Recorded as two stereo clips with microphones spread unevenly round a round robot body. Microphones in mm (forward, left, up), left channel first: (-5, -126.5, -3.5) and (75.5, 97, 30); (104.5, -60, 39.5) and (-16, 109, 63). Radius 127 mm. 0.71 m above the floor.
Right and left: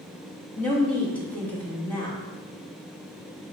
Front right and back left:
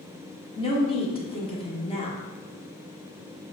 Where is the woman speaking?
45° right, 1.1 m.